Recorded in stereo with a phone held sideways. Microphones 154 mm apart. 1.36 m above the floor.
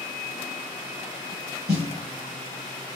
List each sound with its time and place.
1.7 s a snare drum: 85° right, 7.5 m